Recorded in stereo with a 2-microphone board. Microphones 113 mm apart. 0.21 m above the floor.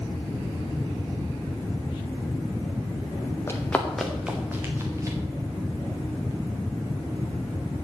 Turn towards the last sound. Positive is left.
turn(degrees=-30)  # may be behind; listen again after turning